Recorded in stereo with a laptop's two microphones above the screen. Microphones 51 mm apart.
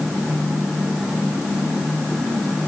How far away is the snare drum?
No snare drum in this recording.